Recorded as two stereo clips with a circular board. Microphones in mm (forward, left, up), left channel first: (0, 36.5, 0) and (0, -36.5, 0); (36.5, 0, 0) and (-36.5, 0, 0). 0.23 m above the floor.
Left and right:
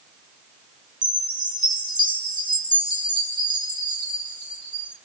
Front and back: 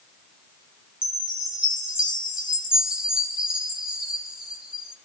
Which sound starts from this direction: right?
A chime, at 1.0 s.